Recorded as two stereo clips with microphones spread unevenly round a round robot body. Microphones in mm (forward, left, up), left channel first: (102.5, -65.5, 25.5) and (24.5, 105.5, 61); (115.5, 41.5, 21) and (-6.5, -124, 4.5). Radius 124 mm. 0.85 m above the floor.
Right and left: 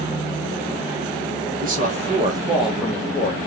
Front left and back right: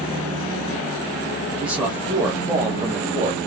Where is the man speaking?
155° left, 1.2 m; by 3.4 s 65° right, 1.0 m.